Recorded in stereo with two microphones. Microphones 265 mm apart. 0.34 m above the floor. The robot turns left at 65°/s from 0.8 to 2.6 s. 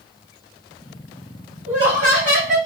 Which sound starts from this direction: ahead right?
Laughter, at 1.7 s.